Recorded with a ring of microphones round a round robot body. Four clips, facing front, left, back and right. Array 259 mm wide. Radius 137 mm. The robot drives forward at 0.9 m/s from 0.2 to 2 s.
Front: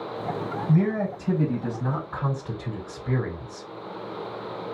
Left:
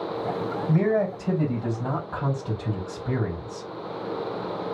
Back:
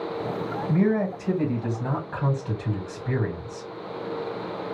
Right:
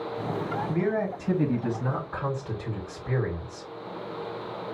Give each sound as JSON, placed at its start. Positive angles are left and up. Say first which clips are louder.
{"t": 0.7, "sound": "a man speaking", "louder": "left 6 dB, back 1 dB", "azimuth_deg": 105, "distance_m": 4.0}